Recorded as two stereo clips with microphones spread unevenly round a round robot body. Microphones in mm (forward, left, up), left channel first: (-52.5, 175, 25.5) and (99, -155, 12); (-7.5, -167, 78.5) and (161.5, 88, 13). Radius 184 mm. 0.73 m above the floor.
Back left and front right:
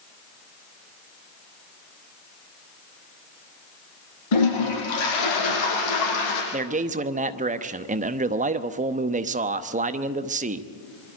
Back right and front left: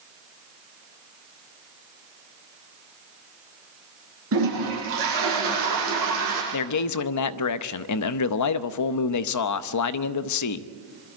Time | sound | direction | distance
4.3 | a toilet flushing | 110° left | 6 m
6.5 | a man speaking | 125° right | 0.8 m